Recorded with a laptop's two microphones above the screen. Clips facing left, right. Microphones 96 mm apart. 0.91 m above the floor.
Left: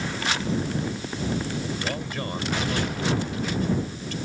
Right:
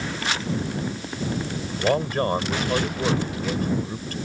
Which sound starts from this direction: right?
A man speaking, at 1.8 s.